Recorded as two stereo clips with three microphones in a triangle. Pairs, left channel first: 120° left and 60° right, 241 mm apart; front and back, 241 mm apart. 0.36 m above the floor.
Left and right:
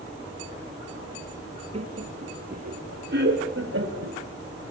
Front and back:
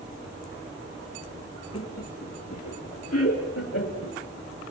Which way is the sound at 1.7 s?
5° left.